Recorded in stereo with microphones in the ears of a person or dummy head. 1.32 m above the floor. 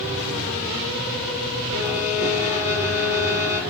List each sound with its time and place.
1.7 s a violin: 80° left, 1.5 m